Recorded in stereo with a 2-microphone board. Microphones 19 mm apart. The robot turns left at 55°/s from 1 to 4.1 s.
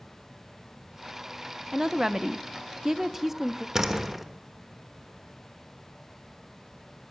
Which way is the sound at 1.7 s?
55° right.